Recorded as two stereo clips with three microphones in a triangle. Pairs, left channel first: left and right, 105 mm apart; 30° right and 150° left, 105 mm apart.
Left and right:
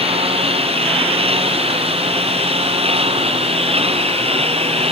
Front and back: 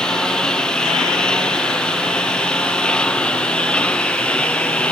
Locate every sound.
0.0 s a lawn mower: 115° right; by 4.9 s 110° right